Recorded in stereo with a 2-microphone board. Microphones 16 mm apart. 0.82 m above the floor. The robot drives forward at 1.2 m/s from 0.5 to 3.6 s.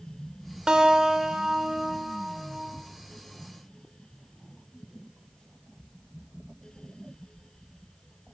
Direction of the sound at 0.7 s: 65° right (ahead or behind).